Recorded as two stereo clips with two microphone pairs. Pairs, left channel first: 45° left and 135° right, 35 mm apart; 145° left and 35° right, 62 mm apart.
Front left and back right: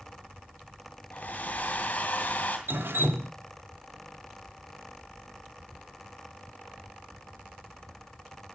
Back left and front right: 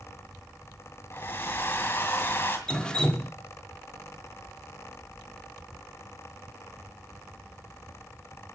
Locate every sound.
1.1 s a hair dryer: 95° left, 2.5 m
2.7 s dripping: 140° right, 1.3 m